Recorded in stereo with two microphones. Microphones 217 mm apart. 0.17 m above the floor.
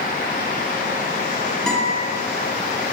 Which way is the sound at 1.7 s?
5° left (ahead or behind).